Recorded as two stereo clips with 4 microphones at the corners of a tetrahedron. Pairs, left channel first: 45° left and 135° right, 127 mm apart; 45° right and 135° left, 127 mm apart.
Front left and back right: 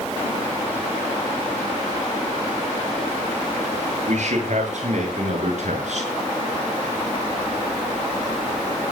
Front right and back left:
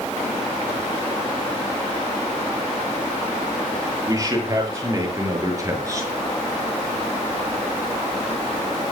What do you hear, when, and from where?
4.1 s a man speaking: 160° right, 8 m